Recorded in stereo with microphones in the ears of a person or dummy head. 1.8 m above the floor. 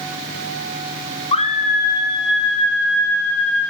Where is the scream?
30° left (ahead or behind), 1.1 m; by 3.7 s 80° left, 2.5 m.